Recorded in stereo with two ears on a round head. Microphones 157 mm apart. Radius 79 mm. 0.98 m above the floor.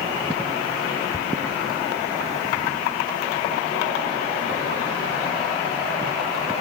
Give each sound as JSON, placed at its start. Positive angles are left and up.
{"t": 1.1, "sound": "a thud", "side_deg": -20}